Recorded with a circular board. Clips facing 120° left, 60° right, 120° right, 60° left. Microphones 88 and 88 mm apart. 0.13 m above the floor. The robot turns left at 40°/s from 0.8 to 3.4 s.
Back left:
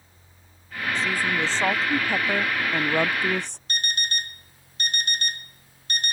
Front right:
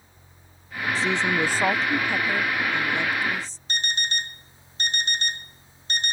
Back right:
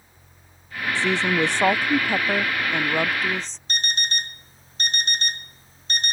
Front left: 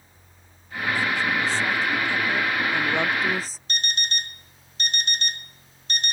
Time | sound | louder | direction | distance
0.9 | a woman speaking | front right 2 dB, back right 4 dB | 115° right | ?
3.7 | an alarm clock | front right 1 dB, back right 3 dB | 105° right | ?